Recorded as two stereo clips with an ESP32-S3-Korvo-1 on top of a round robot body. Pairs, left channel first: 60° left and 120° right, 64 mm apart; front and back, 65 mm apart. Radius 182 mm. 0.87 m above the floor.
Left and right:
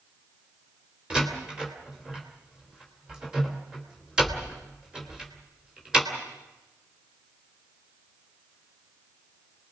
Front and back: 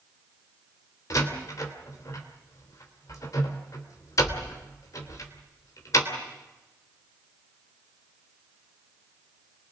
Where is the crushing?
No crushing in this recording.